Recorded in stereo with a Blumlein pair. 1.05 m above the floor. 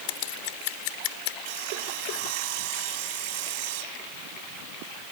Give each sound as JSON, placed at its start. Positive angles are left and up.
{"t": 0.1, "sound": "scissors", "azimuth_deg": 45}
{"t": 1.4, "sound": "sawing", "azimuth_deg": -45}